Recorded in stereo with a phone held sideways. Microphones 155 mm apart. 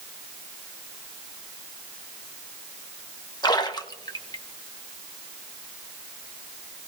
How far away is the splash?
About 1.1 m.